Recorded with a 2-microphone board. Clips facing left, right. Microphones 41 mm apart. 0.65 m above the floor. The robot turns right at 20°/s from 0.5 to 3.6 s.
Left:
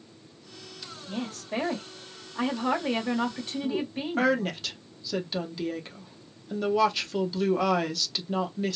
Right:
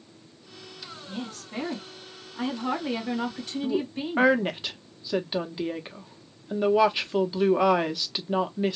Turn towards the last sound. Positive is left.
turn(degrees=-20)  # may be behind; listen again after turning